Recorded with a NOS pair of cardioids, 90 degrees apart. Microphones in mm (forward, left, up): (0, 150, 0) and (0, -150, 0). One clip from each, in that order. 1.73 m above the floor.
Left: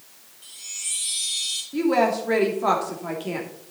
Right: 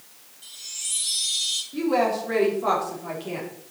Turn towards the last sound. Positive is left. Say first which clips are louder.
# left 3 dB
turn(degrees=35)